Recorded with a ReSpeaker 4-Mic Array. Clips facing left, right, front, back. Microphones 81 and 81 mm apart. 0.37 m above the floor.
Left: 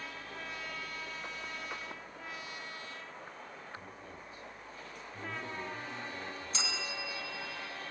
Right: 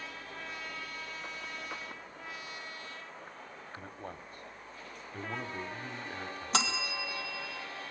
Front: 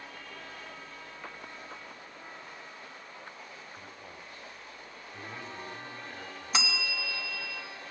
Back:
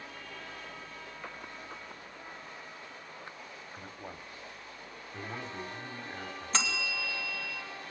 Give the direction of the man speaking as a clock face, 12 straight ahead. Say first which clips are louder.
Right 4 dB, back 2 dB; 4 o'clock.